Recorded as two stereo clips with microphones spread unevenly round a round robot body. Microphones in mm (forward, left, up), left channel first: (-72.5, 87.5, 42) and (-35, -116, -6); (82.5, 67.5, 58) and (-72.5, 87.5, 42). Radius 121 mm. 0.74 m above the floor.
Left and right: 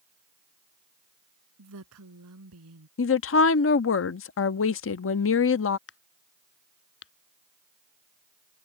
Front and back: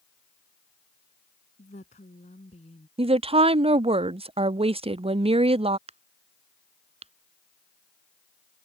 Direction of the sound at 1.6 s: 65° right.